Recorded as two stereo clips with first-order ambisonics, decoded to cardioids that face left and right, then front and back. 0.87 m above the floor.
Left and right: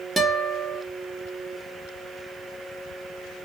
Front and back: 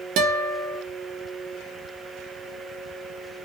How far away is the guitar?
About 1.0 m.